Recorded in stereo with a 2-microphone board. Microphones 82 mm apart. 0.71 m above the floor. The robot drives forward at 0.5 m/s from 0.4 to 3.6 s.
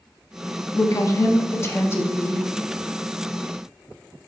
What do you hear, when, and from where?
0.7 s a woman speaking: 40° left (ahead or behind), 0.6 m; by 2.5 s 25° left (ahead or behind), 1.0 m